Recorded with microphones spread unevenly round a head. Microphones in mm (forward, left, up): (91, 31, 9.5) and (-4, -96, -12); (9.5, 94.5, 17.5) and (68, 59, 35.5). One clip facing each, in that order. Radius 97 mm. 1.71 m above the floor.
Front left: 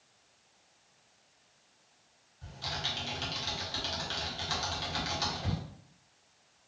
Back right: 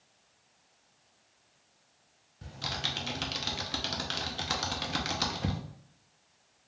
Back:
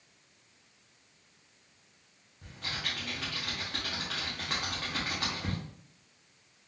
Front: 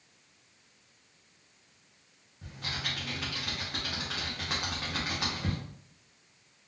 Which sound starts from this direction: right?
Typing on a keyboard, at 2.4 s.